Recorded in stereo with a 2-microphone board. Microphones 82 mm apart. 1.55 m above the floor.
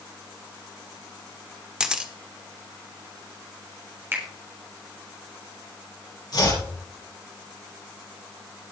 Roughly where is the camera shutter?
Centre.